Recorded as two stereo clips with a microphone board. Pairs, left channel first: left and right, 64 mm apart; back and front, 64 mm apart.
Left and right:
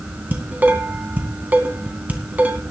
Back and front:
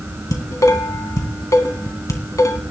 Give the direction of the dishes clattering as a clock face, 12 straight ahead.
5 o'clock.